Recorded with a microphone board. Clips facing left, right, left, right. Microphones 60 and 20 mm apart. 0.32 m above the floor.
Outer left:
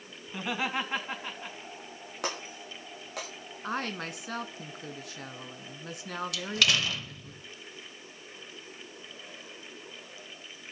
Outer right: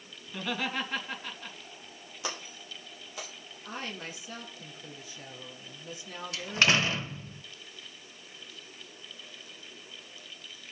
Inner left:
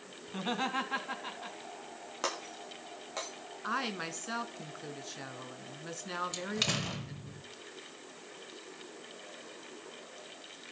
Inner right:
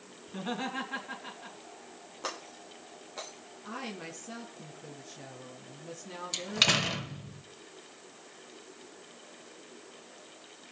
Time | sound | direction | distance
0.3 | laughter | 20° left (ahead or behind) | 3.5 m
2.2 | breaking glass | 65° left (ahead or behind) | 8.5 m
3.6 | a woman speaking | 60° left (ahead or behind) | 3 m
6.3 | a door slam | 30° right (ahead or behind) | 1.0 m